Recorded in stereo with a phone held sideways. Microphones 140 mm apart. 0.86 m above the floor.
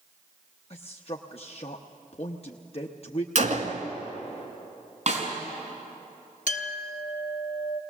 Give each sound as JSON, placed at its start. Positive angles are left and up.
{"t": 0.7, "sound": "a man speaking", "side_deg": 45, "distance_m": 0.8}
{"t": 3.4, "sound": "a gunshot", "side_deg": -60, "distance_m": 1.5}
{"t": 5.1, "sound": "a snare drum", "side_deg": -60, "distance_m": 4.5}
{"t": 6.5, "sound": "a clink", "side_deg": 65, "distance_m": 1.0}